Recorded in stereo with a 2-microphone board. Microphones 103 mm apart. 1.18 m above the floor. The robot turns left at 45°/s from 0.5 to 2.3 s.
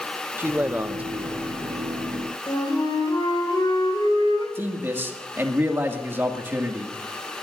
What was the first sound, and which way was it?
A man speaking, 20° right (ahead or behind).